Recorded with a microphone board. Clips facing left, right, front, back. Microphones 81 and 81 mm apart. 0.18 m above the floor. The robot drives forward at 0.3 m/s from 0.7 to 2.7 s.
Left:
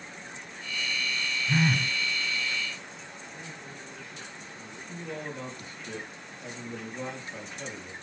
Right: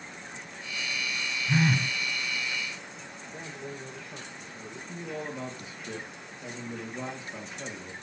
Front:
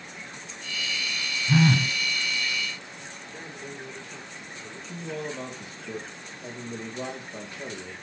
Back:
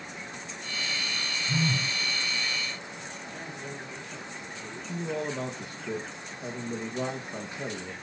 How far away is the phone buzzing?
About 0.9 m.